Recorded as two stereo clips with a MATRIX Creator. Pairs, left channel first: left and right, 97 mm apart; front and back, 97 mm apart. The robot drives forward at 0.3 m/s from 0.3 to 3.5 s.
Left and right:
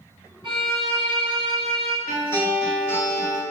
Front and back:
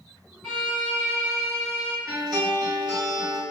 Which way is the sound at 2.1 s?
145° left.